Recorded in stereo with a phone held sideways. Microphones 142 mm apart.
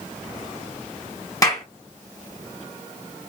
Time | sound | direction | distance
1.4 | a clap | 25° left (ahead or behind) | 1.2 m